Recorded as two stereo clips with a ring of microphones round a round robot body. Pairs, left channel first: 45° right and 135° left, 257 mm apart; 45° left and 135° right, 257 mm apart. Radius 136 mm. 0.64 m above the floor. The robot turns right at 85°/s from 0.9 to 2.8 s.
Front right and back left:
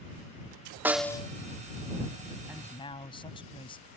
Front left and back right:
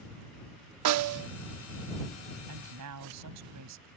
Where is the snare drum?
140° right; by 1.3 s 110° right.